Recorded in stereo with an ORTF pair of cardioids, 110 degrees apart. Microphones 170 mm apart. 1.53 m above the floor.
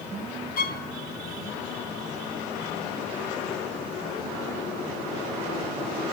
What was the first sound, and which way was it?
A violin, 55° left.